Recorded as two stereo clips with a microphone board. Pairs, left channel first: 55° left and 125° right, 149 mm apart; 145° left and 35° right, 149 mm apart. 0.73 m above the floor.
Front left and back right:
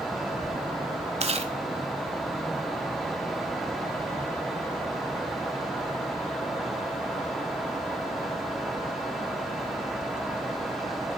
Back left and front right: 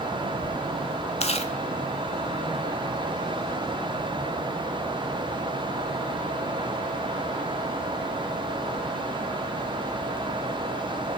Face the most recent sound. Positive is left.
turn(degrees=-170)